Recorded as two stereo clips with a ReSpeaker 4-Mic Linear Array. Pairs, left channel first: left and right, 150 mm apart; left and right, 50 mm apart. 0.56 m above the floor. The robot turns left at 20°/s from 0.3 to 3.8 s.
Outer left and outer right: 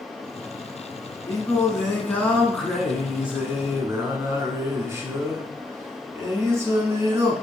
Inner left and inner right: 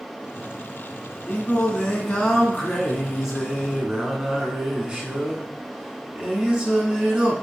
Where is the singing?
30° left, 0.8 m; by 7.3 s 20° right, 0.8 m.